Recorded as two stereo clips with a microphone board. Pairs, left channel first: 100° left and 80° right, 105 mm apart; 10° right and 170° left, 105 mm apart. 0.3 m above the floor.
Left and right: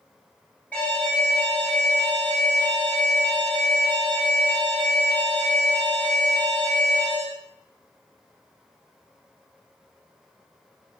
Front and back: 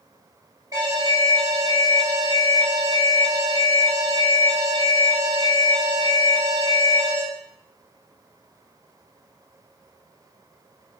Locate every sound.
0.7 s an alarm: 165° left, 1.7 m